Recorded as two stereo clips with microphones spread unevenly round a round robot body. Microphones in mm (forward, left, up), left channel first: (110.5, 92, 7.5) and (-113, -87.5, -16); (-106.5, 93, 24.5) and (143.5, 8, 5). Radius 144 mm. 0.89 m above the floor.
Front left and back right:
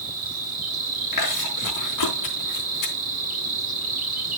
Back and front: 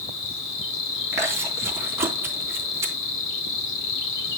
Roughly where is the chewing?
Ahead left.